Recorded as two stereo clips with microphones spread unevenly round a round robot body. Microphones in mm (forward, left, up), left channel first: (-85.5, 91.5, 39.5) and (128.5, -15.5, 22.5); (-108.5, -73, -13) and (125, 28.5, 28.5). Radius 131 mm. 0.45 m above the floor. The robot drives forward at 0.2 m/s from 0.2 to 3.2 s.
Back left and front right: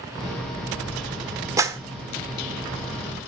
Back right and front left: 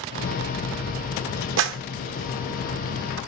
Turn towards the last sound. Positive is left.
turn(degrees=65)